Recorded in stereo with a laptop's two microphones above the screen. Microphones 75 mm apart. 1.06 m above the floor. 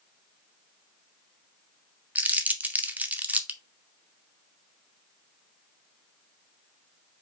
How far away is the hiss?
I don't hear a hiss.